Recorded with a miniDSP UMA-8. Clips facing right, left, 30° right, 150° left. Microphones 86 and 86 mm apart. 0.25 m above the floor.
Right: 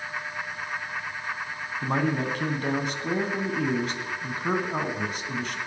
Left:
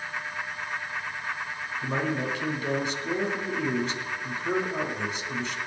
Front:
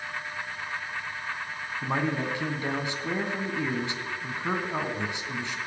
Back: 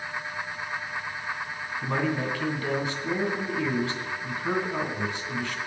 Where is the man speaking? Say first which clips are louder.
Right 3 dB, back 1 dB; 95° right, 2 m.